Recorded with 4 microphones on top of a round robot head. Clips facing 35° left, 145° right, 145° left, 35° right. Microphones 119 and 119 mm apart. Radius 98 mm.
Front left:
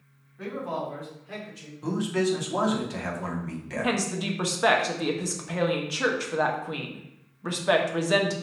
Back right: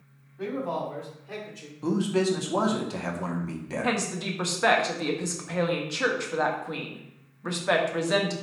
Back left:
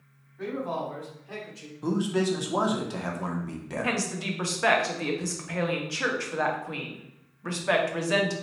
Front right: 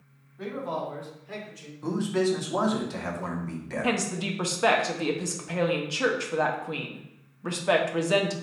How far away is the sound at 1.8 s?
About 0.9 m.